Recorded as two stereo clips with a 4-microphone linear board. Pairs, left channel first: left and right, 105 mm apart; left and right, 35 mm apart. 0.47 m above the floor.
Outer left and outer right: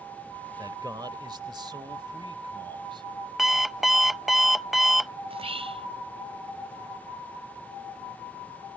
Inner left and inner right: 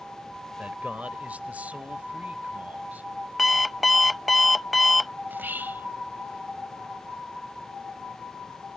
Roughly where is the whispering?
Right.